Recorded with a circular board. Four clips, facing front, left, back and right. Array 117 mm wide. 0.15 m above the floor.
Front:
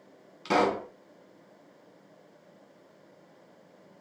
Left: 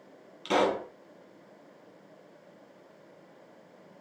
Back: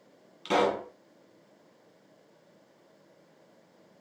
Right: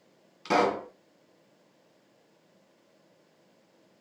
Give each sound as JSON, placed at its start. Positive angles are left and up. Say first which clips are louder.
{"t": 0.5, "sound": "a pop", "louder": "right 1 dB, front 1 dB", "azimuth_deg": -55, "distance_m": 1.4}